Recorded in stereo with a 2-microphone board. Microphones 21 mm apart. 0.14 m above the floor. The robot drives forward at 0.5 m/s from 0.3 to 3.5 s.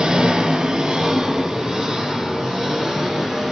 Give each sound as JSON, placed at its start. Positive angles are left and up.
{"t": 0.0, "sound": "an engine running", "side_deg": -45, "distance_m": 0.9}